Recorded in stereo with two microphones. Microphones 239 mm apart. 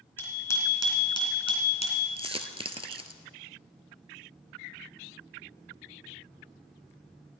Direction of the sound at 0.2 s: 10° left (ahead or behind).